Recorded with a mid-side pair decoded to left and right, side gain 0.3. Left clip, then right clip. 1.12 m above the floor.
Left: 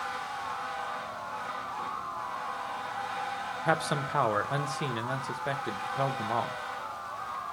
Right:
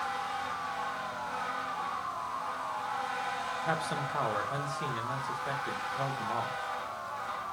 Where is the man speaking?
65° left, 0.9 m.